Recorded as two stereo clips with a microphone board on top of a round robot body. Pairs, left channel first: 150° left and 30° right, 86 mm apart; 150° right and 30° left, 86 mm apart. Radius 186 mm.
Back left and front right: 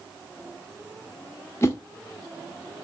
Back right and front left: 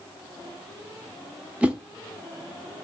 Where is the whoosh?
100° left, 1.7 m.